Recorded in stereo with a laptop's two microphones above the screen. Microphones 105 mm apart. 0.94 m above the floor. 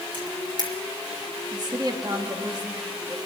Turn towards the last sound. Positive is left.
turn(degrees=-40)  # may be behind; listen again after turning